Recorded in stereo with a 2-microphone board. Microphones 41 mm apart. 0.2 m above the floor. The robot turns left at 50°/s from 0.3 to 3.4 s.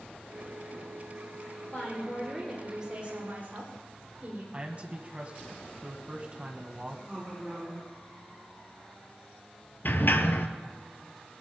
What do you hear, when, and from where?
1.6 s a woman speaking: 45° left, 8 m; by 4.4 s 45° right, 8 m
4.5 s a man speaking: 35° right (ahead or behind), 1.6 m
7.1 s a woman speaking: 10° right (ahead or behind), 8.5 m
9.8 s a sliding door: 60° left (ahead or behind), 1.1 m